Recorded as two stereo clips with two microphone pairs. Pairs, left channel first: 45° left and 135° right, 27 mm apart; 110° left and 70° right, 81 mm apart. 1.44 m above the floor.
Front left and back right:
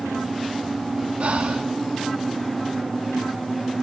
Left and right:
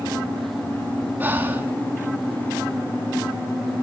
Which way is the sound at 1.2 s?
130° right.